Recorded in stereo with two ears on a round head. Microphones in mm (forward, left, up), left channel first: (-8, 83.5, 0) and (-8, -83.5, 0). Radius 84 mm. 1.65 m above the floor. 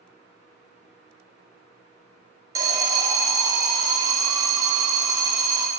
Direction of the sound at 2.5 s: 20° right (ahead or behind).